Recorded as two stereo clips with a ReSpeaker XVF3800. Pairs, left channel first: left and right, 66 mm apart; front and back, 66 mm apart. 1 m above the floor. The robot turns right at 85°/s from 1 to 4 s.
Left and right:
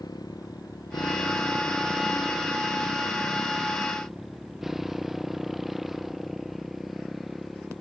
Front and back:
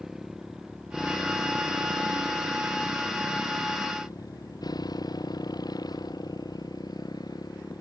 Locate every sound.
0.0 s a motorcycle: 95° left; by 7.8 s straight ahead